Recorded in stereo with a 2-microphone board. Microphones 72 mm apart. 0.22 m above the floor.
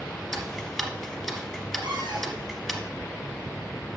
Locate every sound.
0.3 s ticking: centre (ahead or behind), 1.3 m
1.8 s a cupboard door: 70° right (ahead or behind), 2 m